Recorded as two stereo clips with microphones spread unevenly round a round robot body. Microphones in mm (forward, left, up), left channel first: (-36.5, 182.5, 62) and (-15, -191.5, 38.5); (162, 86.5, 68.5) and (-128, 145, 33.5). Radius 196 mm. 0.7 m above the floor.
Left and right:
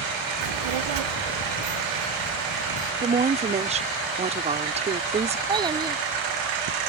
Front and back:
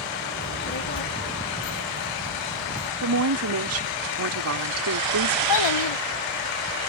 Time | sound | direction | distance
0.4 | a child speaking | 85° right | ?
3.0 | a woman speaking | 155° right | ?
5.5 | a child speaking | 5° right | ?